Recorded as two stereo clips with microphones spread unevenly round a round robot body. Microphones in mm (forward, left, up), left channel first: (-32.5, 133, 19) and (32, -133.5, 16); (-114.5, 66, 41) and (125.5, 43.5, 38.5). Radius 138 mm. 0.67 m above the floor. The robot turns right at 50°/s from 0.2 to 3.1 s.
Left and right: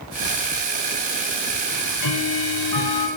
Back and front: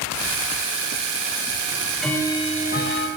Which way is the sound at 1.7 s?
70° left.